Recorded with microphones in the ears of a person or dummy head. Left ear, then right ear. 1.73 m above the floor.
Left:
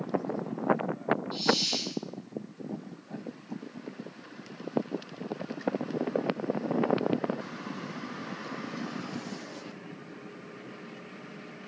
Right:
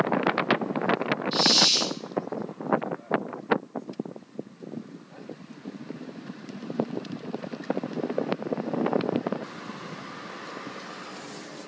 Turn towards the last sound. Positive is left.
turn(degrees=-25)  # may be behind; listen again after turning